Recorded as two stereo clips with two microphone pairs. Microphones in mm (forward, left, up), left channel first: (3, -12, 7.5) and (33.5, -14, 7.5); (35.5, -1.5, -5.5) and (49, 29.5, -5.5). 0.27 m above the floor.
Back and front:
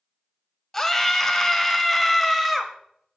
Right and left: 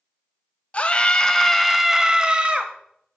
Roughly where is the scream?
Behind right.